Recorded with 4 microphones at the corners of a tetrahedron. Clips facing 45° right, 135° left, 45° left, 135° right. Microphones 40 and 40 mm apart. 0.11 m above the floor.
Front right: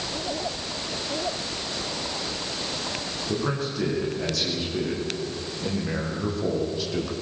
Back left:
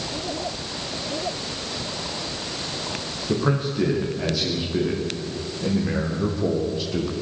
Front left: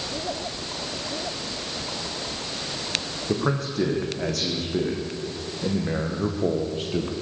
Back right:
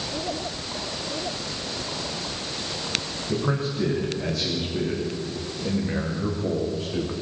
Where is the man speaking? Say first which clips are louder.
Back left 5 dB, front left 1 dB; 65° left, 8.5 m; by 7.1 s 50° left, 4 m.